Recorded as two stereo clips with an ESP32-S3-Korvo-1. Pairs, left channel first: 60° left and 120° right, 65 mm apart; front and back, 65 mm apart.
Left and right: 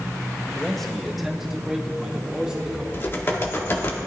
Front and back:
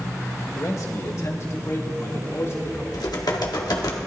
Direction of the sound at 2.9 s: 10° left.